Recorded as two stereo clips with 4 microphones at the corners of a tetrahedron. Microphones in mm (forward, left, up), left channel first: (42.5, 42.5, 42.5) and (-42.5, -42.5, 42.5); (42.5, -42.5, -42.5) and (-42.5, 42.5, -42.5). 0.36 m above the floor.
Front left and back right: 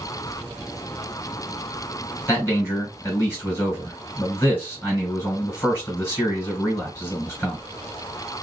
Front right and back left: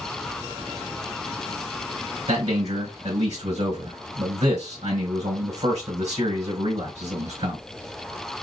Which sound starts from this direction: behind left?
A man speaking, at 2.3 s.